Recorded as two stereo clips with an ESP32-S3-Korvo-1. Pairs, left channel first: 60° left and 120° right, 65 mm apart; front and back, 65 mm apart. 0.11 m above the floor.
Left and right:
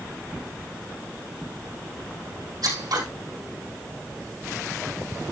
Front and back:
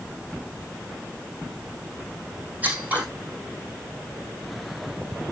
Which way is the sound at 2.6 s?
115° right.